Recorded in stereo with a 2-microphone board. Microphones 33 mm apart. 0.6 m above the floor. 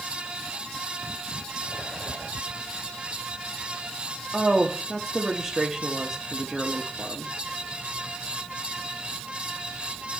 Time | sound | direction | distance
4.3 | a woman speaking | 15° right (ahead or behind) | 0.8 m